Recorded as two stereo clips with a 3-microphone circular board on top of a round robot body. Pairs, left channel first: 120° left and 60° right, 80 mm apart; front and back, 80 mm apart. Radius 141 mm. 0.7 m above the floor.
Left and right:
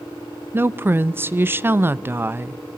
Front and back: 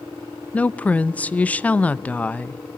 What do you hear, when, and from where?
0.5 s a woman speaking: 50° right, 0.8 m